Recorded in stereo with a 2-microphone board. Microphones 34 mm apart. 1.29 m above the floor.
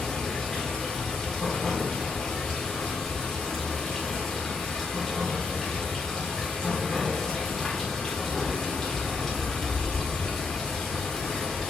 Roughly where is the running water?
Centre.